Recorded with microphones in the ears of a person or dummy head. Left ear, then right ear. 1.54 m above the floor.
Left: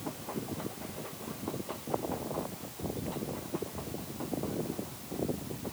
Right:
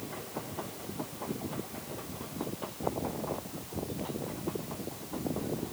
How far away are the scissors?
I don't hear scissors.